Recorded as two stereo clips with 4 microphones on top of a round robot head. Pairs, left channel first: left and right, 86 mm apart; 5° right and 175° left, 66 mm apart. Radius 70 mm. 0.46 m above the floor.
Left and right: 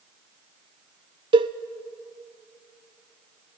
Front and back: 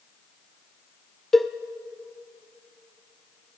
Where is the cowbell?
95° right, 0.8 m.